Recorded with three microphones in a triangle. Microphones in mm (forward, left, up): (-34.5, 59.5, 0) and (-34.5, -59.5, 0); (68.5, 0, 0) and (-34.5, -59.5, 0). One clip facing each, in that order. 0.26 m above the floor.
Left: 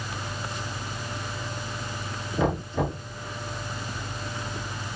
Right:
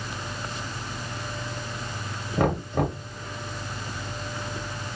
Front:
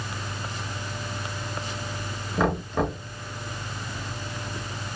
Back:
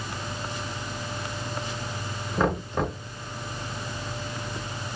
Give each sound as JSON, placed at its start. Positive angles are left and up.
{"t": 2.4, "sound": "knocking", "azimuth_deg": -60, "distance_m": 2.0}